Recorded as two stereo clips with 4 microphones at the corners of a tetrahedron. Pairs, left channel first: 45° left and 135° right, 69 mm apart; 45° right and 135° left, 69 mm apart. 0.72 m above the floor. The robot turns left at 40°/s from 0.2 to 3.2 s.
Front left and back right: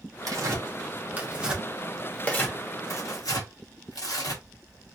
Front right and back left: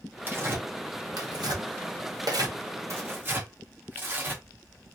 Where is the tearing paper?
165° right, 1.0 m; by 4.4 s 80° left, 1.0 m.